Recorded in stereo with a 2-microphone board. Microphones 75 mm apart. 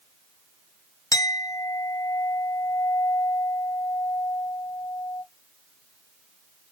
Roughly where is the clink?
Left.